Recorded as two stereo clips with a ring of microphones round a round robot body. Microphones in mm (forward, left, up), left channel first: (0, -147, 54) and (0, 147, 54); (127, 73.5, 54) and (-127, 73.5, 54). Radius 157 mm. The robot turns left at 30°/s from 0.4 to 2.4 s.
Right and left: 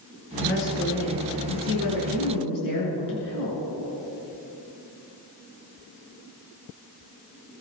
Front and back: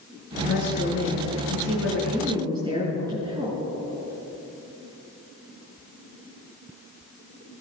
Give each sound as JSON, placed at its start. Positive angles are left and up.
{"t": 0.4, "sound": "a woman speaking", "azimuth_deg": -45, "distance_m": 6.5}